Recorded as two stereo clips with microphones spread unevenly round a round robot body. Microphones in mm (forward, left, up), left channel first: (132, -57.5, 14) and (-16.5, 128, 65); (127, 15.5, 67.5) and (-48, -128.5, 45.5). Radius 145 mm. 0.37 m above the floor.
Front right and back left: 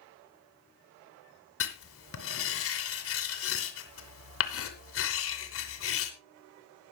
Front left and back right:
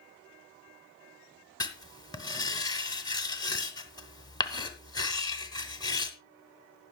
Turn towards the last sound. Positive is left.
turn(degrees=-35)